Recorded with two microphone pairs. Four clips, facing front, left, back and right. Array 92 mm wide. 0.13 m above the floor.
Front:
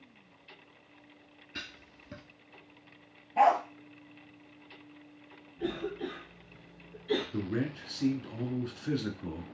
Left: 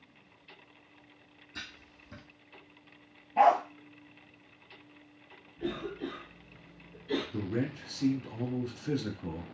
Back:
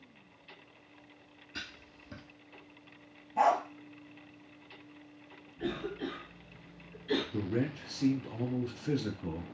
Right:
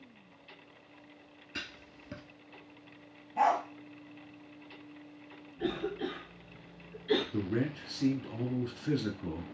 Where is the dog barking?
35° left, 0.9 m.